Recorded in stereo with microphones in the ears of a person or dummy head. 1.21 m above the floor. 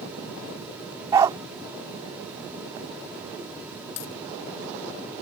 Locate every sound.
1.1 s a dog barking: 20° right (ahead or behind)
4.0 s a dropped coin: 75° left (ahead or behind)